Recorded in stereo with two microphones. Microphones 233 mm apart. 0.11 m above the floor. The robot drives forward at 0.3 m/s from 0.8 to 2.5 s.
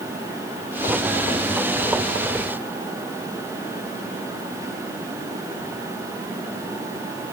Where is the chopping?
No chopping in this recording.